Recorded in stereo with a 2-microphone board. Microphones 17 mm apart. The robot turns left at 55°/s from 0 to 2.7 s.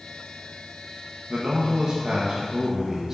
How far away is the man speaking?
About 1.6 m.